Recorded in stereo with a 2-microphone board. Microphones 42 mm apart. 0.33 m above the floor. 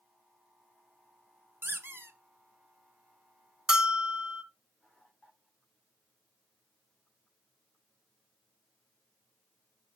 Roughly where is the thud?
I don't hear a thud.